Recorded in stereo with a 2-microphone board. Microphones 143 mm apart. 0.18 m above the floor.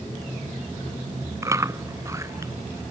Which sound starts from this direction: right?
Chewing, at 1.4 s.